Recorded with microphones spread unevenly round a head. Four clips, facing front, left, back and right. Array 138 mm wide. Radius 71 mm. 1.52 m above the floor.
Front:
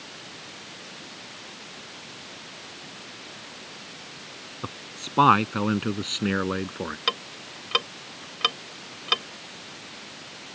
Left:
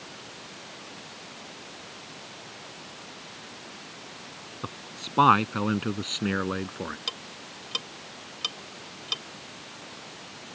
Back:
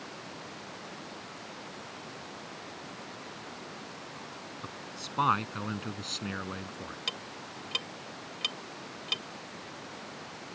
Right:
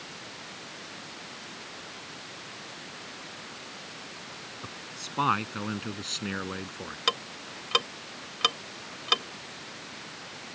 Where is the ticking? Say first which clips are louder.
Right 8 dB, front 9 dB; 40° right.